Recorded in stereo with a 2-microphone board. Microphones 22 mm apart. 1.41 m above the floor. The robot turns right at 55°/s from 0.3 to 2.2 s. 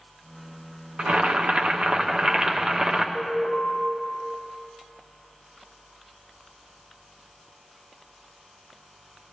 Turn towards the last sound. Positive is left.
turn(degrees=-50)  # may be behind; listen again after turning